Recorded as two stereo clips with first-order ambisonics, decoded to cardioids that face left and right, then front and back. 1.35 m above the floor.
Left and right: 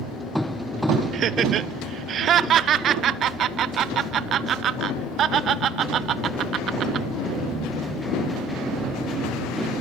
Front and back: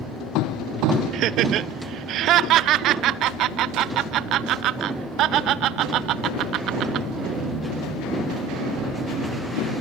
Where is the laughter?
140° right, 0.7 m.